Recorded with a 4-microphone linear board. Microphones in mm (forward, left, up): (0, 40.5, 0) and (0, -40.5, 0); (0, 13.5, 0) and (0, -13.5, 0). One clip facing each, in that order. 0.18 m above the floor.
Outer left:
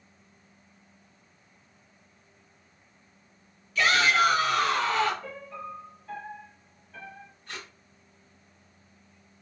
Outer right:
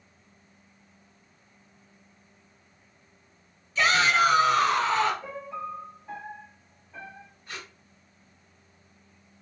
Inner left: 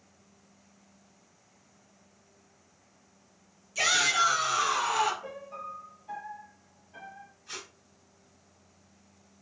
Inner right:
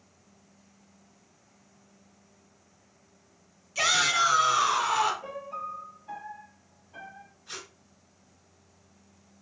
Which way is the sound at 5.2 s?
15° right (ahead or behind).